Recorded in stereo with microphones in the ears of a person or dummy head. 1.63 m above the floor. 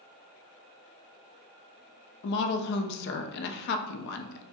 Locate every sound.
2.2 s a woman speaking: 65° left (ahead or behind), 0.6 m